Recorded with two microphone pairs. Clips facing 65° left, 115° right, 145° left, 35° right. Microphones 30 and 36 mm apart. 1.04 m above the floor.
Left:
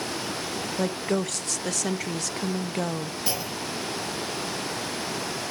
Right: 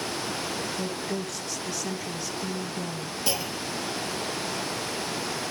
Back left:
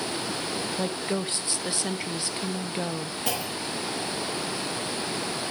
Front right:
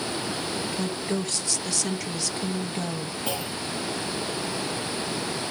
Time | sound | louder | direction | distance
0.8 | a woman speaking | left 5 dB, back left 1 dB | 80° left | 0.9 m
3.3 | a clunk | right 3 dB, back left 1 dB | 140° left | 5.5 m